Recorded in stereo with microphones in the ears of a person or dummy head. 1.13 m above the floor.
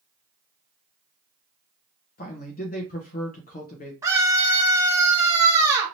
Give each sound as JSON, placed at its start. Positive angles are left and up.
{"t": 2.2, "sound": "a man speaking", "side_deg": 45, "distance_m": 0.7}
{"t": 4.0, "sound": "a scream", "side_deg": -15, "distance_m": 1.2}